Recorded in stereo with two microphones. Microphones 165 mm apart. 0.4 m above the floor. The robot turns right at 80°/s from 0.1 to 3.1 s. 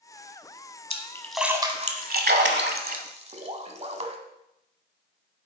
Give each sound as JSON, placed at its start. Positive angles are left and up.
{"t": 0.9, "sound": "a splash", "side_deg": 35, "distance_m": 1.0}